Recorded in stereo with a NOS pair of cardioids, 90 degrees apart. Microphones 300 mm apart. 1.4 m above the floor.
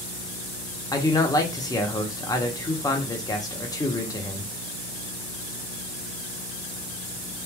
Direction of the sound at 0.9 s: 10° left.